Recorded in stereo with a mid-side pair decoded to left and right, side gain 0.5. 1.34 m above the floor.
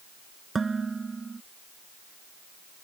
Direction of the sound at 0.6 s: 25° right.